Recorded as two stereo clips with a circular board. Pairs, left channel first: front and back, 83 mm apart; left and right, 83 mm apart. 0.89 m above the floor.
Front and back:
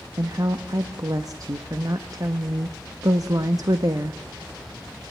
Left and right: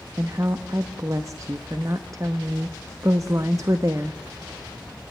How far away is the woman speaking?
About 0.8 m.